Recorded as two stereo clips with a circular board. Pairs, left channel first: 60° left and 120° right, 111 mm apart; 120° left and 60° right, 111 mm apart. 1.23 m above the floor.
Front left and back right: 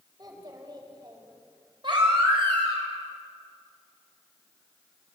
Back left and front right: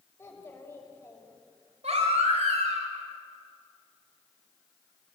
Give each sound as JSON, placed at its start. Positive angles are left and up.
{"t": 0.2, "sound": "a child speaking", "azimuth_deg": -170, "distance_m": 5.0}
{"t": 1.8, "sound": "a baby crying", "azimuth_deg": -75, "distance_m": 5.0}